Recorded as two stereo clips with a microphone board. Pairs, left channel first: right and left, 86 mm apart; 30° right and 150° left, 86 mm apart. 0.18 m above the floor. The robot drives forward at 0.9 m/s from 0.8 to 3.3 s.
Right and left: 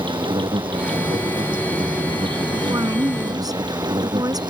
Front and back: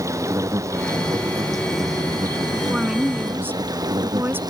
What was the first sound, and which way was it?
An insect, 100° left.